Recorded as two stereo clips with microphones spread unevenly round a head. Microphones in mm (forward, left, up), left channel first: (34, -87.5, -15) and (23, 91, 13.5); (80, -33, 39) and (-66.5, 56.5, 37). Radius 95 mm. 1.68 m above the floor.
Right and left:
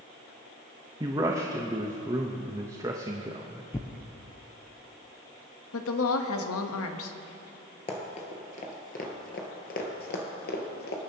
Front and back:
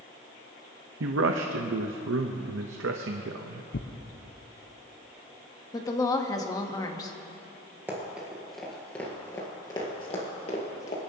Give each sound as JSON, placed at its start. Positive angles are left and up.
{"t": 1.0, "sound": "a man speaking", "azimuth_deg": 165, "distance_m": 0.6}
{"t": 3.7, "sound": "tearing paper", "azimuth_deg": -10, "distance_m": 0.7}
{"t": 5.7, "sound": "a woman speaking", "azimuth_deg": -105, "distance_m": 0.9}
{"t": 7.9, "sound": "running footsteps", "azimuth_deg": -140, "distance_m": 2.0}